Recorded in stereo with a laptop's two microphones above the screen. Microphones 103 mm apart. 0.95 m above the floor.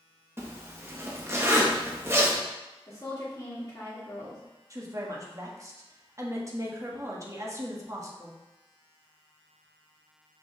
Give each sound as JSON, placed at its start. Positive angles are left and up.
{"t": 0.4, "sound": "a zipper", "side_deg": -25, "distance_m": 0.9}
{"t": 2.9, "sound": "a woman speaking", "side_deg": 30, "distance_m": 1.8}
{"t": 4.7, "sound": "a woman speaking", "side_deg": -30, "distance_m": 1.5}